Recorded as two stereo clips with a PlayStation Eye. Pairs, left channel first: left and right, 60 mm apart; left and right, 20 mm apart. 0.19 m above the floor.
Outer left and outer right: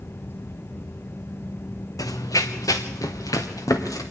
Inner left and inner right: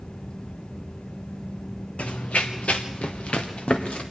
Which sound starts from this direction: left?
Running footsteps, at 2.0 s.